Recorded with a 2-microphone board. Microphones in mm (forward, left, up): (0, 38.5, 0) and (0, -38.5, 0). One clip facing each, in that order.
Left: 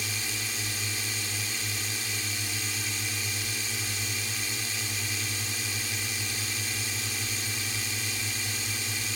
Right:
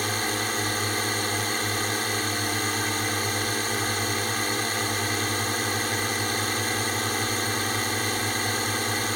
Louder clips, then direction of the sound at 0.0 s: Right 9 dB; 55° right (ahead or behind).